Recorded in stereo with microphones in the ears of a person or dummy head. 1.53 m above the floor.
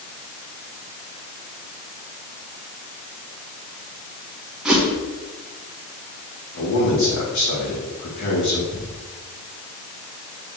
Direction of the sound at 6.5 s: 55° left (ahead or behind).